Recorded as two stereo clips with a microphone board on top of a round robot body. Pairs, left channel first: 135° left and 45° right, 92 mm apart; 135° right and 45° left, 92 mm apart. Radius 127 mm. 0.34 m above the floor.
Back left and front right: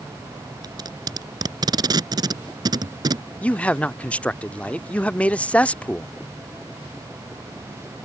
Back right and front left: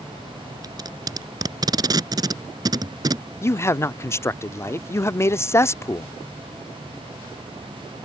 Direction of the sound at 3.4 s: 160° right.